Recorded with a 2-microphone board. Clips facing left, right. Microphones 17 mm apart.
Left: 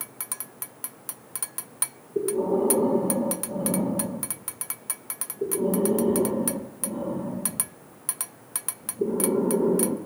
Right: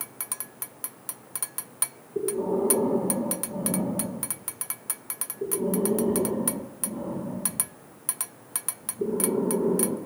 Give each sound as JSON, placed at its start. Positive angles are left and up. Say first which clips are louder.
{"t": 2.1, "sound": "breathing", "louder": "left 2 dB", "side_deg": 15, "distance_m": 2.5}